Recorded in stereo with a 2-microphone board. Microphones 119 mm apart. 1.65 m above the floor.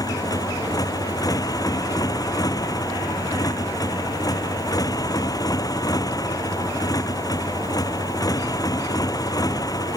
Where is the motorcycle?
30° left (ahead or behind).